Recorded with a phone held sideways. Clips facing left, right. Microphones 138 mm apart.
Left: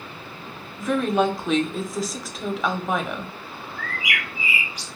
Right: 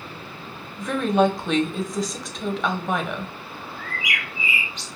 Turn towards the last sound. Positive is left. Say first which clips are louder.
# left 2 dB
turn(degrees=-25)  # may be behind; listen again after turning